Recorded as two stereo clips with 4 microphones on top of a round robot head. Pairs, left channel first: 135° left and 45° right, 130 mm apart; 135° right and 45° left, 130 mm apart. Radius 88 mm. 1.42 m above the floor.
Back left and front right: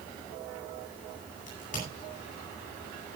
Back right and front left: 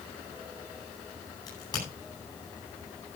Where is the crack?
160° left, 10 m.